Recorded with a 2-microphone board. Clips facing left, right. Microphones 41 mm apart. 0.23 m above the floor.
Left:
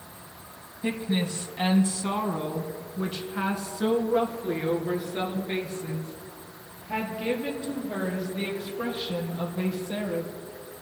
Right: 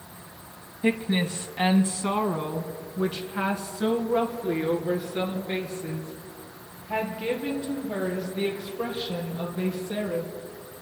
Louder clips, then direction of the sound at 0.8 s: Right 3 dB; 35° right (ahead or behind).